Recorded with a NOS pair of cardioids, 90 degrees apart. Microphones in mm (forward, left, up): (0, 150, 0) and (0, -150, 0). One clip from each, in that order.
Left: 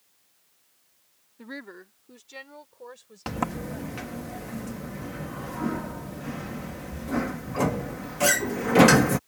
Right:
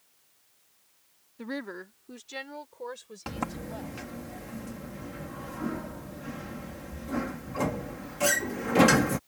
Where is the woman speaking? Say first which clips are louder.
Right 4 dB; 25° right; by 4.1 s 35° right.